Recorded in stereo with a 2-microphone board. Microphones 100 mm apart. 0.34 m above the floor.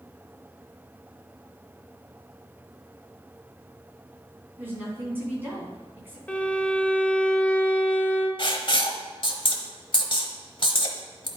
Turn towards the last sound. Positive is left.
turn(degrees=55)  # may be behind; listen again after turning